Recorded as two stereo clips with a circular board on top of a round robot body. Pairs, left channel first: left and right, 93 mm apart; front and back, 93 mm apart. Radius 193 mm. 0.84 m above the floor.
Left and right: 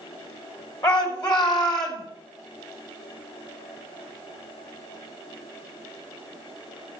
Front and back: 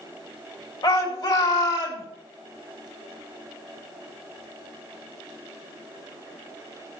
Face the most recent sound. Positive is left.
turn(degrees=60)